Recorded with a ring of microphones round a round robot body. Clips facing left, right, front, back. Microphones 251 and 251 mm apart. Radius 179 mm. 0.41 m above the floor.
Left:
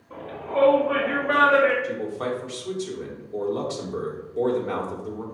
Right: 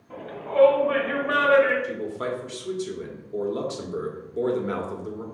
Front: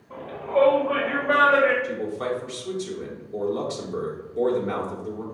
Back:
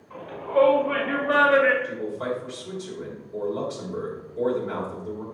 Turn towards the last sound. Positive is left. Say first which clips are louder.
# left 2 dB, front 1 dB
turn(degrees=-40)